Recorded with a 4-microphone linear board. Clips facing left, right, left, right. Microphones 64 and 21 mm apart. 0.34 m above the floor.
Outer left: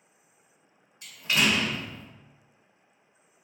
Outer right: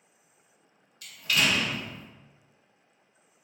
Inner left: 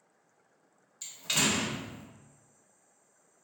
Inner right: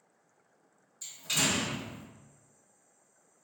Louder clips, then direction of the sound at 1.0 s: Outer left 1 dB, inner left 1 dB; 25° left (ahead or behind).